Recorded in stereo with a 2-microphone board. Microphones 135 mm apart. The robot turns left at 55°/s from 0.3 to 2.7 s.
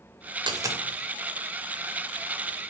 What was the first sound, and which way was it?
A dropped coin, 35° right (ahead or behind).